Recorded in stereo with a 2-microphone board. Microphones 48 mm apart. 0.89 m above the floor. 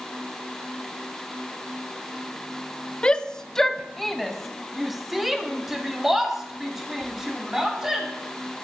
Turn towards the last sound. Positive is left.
turn(degrees=-10)  # may be behind; listen again after turning